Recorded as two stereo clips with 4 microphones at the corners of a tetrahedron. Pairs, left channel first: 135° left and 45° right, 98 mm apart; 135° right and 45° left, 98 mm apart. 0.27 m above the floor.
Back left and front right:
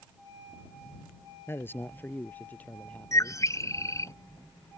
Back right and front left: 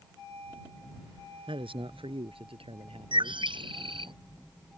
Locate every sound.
1.5 s a man speaking: 70° left; by 3.4 s 60° left
3.1 s a bird: 75° left